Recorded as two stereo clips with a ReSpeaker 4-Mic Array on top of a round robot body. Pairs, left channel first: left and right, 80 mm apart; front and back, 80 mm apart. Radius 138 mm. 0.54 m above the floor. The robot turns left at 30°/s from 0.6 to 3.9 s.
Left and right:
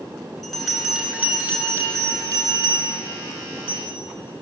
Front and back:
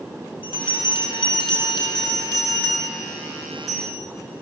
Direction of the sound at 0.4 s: Straight ahead.